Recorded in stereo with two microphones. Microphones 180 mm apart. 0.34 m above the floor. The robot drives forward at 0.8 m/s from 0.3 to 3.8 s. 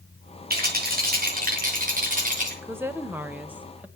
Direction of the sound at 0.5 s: 60° right (ahead or behind).